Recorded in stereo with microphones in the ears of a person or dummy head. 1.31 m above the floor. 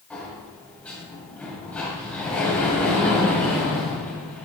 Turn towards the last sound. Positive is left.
turn(degrees=5)  # may be behind; listen again after turning